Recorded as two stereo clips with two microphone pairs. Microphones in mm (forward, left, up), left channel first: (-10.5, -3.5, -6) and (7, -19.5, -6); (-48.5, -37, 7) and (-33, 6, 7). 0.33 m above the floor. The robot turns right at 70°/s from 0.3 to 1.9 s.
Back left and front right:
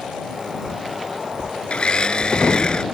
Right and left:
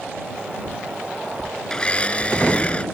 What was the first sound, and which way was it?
A blender, 170° left.